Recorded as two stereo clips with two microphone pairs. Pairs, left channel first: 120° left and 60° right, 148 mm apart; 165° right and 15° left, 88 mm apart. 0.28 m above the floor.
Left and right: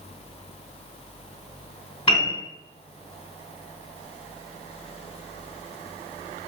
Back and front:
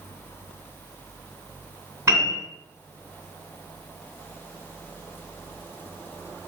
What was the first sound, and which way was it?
A piano, 70° left.